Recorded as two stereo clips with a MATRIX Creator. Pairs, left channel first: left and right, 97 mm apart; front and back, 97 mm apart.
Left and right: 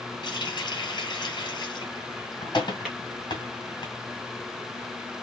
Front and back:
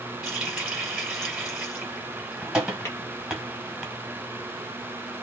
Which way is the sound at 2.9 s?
10° right.